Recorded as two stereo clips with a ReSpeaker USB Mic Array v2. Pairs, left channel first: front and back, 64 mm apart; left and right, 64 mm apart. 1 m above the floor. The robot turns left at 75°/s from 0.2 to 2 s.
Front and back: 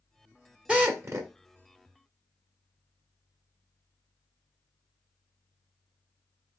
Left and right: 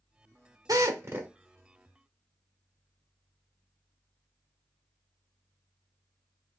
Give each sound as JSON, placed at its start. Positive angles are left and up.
{"t": 0.7, "sound": "a drill", "azimuth_deg": -110, "distance_m": 1.3}